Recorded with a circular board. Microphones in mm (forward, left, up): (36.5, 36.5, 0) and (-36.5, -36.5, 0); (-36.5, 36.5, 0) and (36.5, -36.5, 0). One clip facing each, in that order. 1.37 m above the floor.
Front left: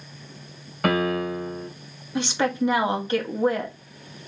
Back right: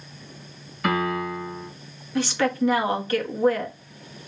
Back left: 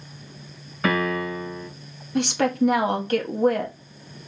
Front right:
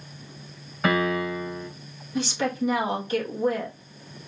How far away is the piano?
About 2 m.